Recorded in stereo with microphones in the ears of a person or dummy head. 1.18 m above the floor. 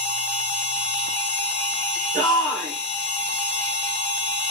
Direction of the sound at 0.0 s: 30° left (ahead or behind).